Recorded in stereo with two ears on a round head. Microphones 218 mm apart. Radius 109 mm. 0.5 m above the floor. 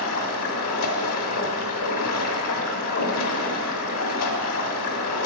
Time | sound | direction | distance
0.0 | running water | 70° left (ahead or behind) | 1.1 m